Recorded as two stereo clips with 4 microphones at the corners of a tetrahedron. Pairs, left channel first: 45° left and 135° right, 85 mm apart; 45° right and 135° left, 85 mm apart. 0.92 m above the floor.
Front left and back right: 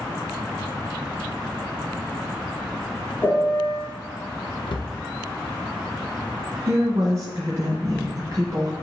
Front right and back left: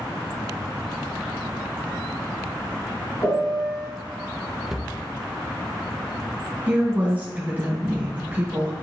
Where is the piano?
15° right, 2.5 m.